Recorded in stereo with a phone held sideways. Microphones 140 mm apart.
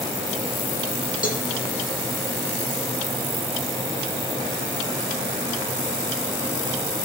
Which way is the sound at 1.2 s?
75° left (ahead or behind).